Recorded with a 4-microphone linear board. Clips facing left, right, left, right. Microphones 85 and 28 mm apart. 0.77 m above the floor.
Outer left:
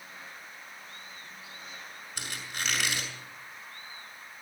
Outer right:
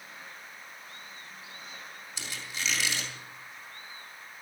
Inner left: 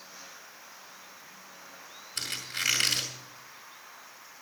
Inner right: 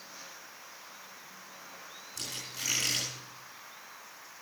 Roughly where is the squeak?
Left.